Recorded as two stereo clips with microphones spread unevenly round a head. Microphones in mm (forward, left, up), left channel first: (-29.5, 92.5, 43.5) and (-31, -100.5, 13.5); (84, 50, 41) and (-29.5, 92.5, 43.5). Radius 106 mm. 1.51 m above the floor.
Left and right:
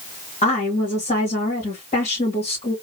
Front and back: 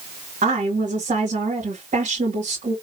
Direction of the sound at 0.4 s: 145° left.